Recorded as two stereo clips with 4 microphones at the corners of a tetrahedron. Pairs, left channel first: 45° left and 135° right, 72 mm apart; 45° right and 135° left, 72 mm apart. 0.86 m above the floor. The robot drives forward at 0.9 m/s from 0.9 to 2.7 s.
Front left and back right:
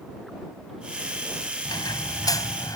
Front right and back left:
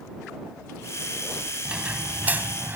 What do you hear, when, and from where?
1.6 s a squeak: 60° left; by 2.8 s 75° left